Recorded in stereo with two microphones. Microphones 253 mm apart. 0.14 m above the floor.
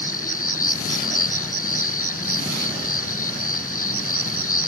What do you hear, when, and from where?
0.0 s an insect: 60° left (ahead or behind)